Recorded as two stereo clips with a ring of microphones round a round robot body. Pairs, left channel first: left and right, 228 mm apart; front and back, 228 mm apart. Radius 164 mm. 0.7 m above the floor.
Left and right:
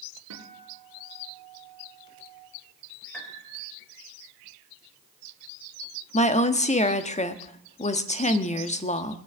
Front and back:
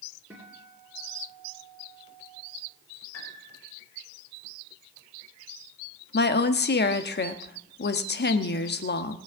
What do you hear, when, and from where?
0.3 s a guitar: 95° right, 3 m
3.1 s a piano: 5° left, 3.5 m
6.1 s a woman speaking: 35° left, 1.1 m